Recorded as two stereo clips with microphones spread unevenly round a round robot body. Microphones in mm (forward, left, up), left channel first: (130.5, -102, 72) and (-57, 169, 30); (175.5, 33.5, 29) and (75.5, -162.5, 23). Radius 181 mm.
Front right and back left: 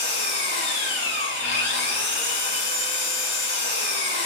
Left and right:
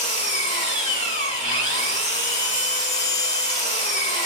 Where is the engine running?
Straight ahead, 1.6 m.